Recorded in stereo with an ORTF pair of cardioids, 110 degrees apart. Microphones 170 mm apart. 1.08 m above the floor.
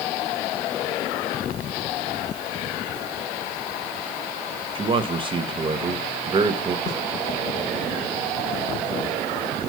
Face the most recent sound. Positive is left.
turn(degrees=45)